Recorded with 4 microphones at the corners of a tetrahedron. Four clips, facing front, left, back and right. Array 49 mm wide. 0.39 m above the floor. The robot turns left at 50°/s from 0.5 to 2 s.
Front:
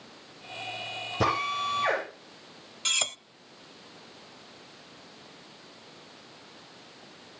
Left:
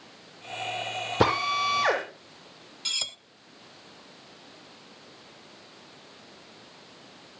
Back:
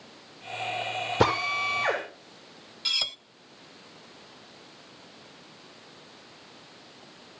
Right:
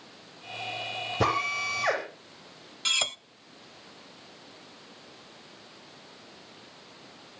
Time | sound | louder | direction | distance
1.2 | a drill | left 3 dB, back 2 dB | 130° left | 8 m
2.9 | cutlery clinking | right 5 dB, even | 60° right | 0.5 m